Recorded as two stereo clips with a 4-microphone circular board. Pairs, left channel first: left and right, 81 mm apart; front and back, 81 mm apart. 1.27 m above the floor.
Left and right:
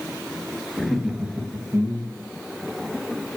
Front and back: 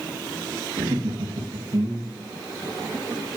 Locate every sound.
0.8 s laughter: 175° left, 1.1 m; by 2.3 s 135° right, 1.1 m